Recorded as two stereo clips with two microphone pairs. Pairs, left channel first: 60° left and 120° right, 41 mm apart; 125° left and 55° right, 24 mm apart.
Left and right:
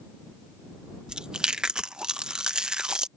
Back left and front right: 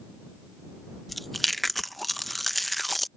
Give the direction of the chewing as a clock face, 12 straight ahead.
5 o'clock.